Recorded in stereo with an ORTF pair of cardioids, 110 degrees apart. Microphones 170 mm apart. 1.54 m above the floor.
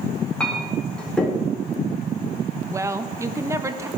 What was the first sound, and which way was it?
A clink, 5° left.